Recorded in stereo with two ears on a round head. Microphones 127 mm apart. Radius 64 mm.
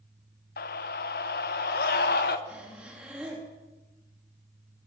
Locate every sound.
0.6 s a scream: 70° left (ahead or behind), 0.9 m; by 2.4 s 75° left (ahead or behind), 1.9 m
2.5 s breathing: 10° right (ahead or behind), 4 m